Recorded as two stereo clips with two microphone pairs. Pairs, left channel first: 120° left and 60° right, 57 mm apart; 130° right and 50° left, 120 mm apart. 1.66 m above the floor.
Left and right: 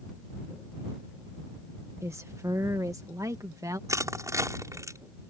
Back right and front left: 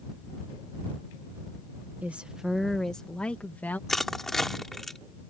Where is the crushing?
45° right.